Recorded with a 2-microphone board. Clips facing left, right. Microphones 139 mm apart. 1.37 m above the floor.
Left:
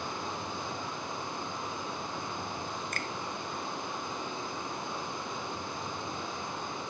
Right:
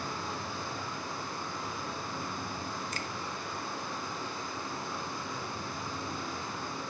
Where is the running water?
20° left (ahead or behind), 5 m.